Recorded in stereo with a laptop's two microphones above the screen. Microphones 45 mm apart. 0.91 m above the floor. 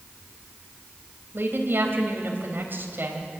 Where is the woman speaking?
55° right (ahead or behind), 4 m.